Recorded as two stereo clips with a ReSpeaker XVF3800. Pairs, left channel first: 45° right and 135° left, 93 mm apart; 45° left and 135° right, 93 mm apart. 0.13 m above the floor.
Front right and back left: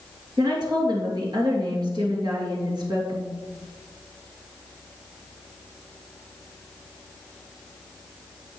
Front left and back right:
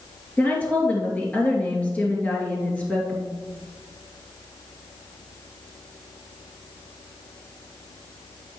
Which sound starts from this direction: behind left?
A woman speaking, at 0.4 s.